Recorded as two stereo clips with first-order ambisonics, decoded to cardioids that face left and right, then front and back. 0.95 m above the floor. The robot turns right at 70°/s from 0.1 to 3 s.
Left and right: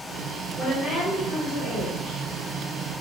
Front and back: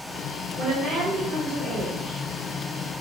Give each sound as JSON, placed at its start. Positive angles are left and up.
{"t": 0.6, "sound": "a woman speaking", "azimuth_deg": 175, "distance_m": 1.8}